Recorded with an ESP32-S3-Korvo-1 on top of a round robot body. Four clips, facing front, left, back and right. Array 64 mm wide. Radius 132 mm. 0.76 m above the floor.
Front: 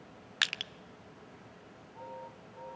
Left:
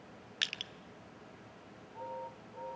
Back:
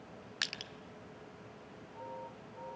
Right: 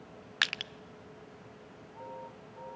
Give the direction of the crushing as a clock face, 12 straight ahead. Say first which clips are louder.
Right 8 dB, front 7 dB; 2 o'clock.